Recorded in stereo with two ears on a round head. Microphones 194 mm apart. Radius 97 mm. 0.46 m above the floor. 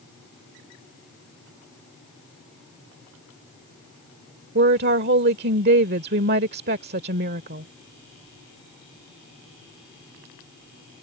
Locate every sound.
4.5 s a woman speaking: 50° right (ahead or behind)